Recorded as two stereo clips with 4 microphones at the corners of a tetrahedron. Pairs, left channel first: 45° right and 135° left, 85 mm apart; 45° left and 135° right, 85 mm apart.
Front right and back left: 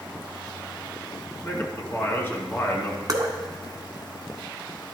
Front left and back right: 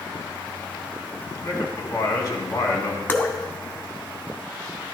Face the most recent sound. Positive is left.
turn(degrees=105)